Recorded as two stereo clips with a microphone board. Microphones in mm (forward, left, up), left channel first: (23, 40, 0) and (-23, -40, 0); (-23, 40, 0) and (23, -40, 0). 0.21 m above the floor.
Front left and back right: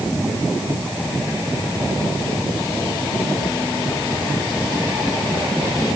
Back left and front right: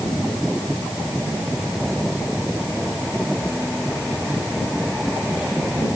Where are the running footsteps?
I don't hear running footsteps.